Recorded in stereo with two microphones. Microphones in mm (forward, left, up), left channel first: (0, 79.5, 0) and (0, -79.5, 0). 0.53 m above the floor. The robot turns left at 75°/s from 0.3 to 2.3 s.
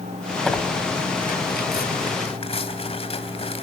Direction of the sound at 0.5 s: 5° left (ahead or behind).